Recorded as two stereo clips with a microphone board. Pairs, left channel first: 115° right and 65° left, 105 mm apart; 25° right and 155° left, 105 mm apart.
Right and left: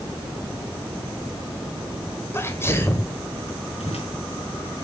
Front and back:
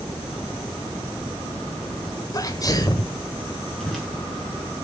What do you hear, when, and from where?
2.3 s a sneeze: 55° right, 1.8 m
3.8 s a whoosh: 105° right, 5 m